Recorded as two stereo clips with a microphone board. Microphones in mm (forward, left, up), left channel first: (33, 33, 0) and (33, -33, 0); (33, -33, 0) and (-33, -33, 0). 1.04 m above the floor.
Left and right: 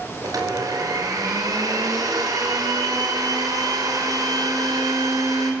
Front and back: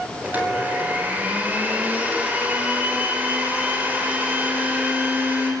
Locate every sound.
0.2 s a blender: 115° right, 5 m